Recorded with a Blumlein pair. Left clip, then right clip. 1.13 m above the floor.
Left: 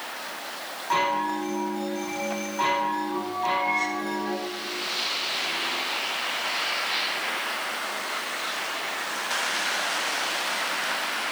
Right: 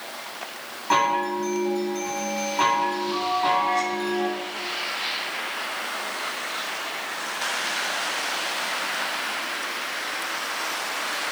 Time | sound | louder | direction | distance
0.9 | a chime | right 3 dB | 20° right | 8 m